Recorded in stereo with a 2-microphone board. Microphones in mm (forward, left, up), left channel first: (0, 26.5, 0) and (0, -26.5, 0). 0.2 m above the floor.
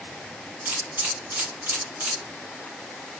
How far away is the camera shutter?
About 2 m.